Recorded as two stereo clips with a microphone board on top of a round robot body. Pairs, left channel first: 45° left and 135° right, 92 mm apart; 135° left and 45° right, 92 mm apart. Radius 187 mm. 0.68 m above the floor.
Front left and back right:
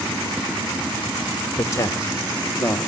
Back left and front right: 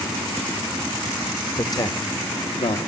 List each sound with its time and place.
1.6 s a man speaking: 95° left, 1.6 m; by 2.8 s 120° left, 1.9 m